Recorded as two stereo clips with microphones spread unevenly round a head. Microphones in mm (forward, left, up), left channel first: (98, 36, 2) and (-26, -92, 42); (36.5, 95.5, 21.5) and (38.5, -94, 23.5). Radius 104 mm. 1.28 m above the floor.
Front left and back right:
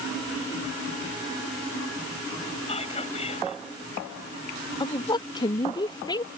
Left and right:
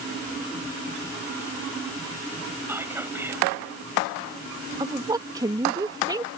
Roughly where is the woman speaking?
Ahead.